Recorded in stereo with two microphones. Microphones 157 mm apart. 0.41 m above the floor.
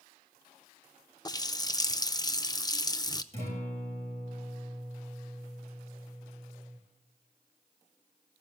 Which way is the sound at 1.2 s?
25° left (ahead or behind).